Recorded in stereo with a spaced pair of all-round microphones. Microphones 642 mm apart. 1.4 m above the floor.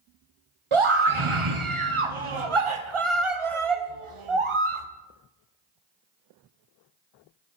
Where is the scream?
50° right (ahead or behind), 1.0 m.